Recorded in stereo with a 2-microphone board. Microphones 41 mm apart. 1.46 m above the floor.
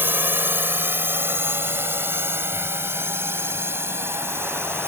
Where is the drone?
55° right (ahead or behind); by 4.9 s 70° right (ahead or behind).